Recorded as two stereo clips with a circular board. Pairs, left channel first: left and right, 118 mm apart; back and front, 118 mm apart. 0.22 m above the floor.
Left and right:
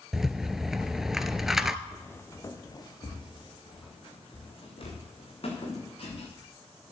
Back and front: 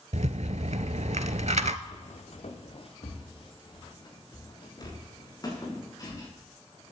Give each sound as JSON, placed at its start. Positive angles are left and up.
{"t": 0.1, "sound": "a rattle", "azimuth_deg": -5, "distance_m": 0.6}
{"t": 1.9, "sound": "footsteps", "azimuth_deg": 170, "distance_m": 1.9}